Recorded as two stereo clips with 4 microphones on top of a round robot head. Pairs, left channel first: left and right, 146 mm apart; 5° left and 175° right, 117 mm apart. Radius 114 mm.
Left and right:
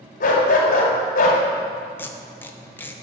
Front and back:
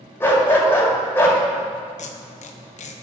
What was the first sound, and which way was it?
A dog barking, 75° left.